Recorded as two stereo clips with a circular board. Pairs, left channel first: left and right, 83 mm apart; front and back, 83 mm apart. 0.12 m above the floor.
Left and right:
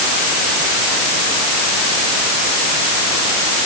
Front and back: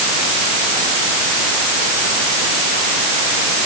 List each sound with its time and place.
Only background noise.